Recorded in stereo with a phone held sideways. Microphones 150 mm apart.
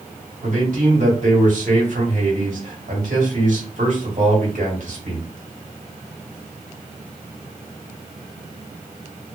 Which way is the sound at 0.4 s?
60° right (ahead or behind).